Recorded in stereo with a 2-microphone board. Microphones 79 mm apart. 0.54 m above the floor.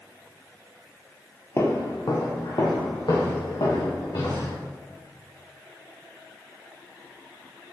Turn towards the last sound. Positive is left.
turn(degrees=75)  # may be behind; listen again after turning